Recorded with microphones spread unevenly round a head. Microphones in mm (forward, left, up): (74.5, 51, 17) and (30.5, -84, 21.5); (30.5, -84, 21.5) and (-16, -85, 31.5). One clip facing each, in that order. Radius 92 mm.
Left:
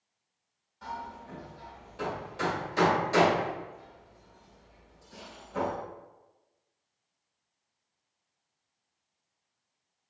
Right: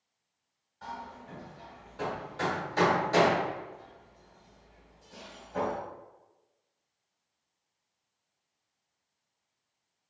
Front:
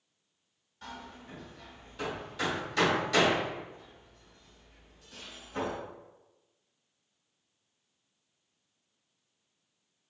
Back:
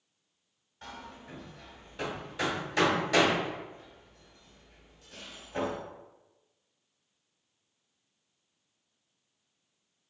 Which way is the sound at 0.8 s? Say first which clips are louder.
Left 2 dB, even; 150° left.